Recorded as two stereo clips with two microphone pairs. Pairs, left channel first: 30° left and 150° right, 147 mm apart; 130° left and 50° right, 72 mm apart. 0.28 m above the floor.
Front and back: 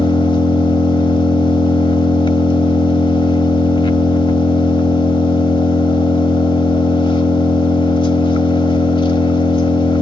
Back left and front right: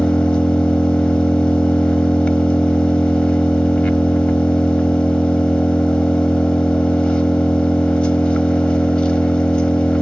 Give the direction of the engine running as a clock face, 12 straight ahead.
10 o'clock.